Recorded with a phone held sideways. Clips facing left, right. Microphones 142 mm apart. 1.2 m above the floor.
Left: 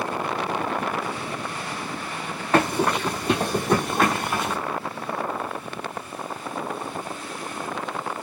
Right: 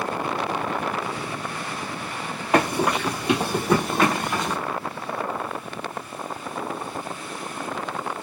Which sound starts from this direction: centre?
Running footsteps, at 2.5 s.